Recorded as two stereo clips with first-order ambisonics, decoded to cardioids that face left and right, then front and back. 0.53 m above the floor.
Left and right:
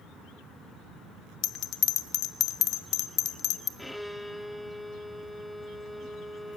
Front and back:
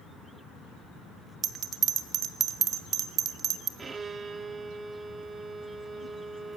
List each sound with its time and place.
1.4 s a bell: 130° left, 0.7 m
3.8 s a violin: straight behind, 0.5 m